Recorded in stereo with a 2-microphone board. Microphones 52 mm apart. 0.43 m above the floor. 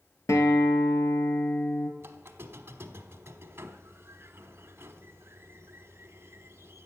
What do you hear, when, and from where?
0.3 s a guitar: 80° left, 1.5 m
2.0 s a squeak: 50° right (ahead or behind), 1.0 m